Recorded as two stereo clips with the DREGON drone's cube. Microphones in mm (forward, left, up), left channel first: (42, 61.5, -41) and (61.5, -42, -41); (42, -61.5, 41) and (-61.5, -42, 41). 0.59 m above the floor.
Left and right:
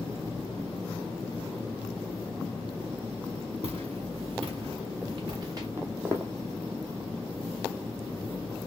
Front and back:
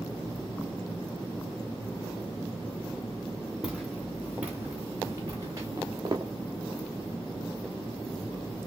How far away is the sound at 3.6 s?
About 3 m.